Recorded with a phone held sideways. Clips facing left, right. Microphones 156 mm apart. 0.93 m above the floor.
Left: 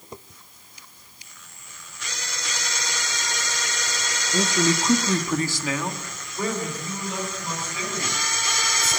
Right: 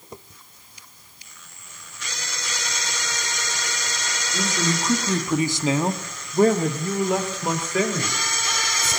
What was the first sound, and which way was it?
A man speaking, 30° left (ahead or behind).